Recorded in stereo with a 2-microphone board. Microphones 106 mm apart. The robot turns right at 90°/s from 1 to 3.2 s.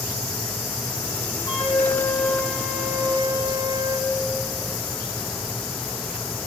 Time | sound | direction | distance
1.5 | a flute | 105° left | 1.8 m